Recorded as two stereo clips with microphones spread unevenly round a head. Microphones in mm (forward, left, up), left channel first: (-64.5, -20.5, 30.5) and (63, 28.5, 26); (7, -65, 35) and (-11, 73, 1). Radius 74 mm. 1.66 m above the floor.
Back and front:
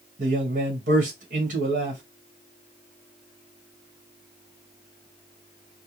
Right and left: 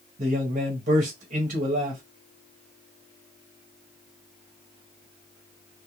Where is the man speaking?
50° left, 1.1 m.